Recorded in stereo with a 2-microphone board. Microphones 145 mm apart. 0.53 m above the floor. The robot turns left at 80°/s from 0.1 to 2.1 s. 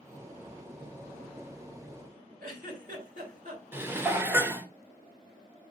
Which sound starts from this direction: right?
A giggle, at 2.4 s.